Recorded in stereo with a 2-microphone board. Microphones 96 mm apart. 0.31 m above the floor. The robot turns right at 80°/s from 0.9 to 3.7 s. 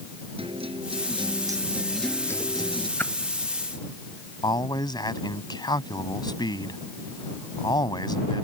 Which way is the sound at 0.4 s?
85° right.